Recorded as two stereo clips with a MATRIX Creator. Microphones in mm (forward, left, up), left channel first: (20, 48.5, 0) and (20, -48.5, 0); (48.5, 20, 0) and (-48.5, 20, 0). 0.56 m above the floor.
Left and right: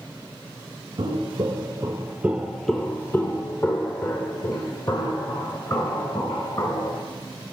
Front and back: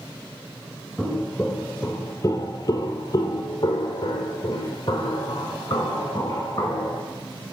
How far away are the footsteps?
About 0.9 m.